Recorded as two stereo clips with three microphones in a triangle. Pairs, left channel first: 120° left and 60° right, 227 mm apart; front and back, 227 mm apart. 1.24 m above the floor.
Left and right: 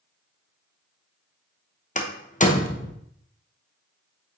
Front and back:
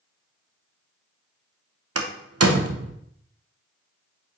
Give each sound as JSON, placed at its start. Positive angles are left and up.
{"t": 1.9, "sound": "a door slam", "azimuth_deg": 175, "distance_m": 0.7}